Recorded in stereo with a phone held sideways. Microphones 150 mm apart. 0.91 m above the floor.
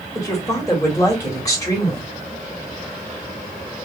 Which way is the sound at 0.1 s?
25° left (ahead or behind).